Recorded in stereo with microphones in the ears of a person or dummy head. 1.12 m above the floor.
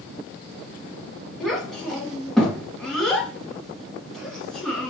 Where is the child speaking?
5° left (ahead or behind), 1.3 m.